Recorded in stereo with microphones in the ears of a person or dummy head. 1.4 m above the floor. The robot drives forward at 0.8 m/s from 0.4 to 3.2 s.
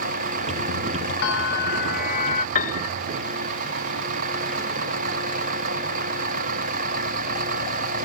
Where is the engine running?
45° right (ahead or behind).